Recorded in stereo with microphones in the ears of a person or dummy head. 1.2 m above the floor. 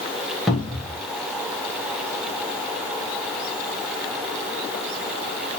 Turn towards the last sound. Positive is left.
turn(degrees=-5)  # may be behind; listen again after turning